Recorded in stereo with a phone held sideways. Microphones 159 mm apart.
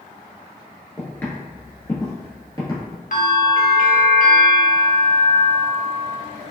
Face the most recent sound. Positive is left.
turn(degrees=55)  # may be behind; listen again after turning